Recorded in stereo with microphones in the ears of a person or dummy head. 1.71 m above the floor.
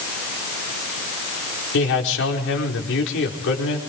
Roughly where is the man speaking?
Left.